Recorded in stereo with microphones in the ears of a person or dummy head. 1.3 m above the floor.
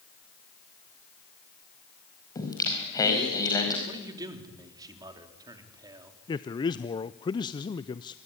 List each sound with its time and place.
2.4 s singing: 20° left (ahead or behind), 4.5 m
3.9 s a man speaking: 25° right (ahead or behind), 3.5 m
6.3 s a man speaking: 20° left (ahead or behind), 0.5 m